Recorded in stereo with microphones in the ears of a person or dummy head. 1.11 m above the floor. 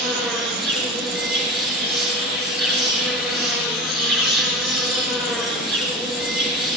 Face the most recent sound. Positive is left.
turn(degrees=-10)  # may be behind; listen again after turning